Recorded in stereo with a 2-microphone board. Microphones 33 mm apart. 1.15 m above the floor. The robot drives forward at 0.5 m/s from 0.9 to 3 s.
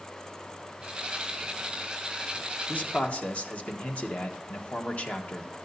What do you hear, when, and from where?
2.7 s a man speaking: 50° left (ahead or behind), 1.3 m; by 5.5 s 45° left (ahead or behind), 1.3 m